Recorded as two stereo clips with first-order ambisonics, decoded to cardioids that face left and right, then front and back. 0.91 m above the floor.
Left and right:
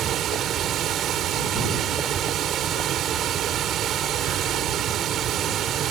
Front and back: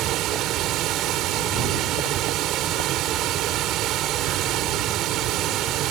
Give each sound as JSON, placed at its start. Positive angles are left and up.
{"t": 0.0, "sound": "running water", "azimuth_deg": -140}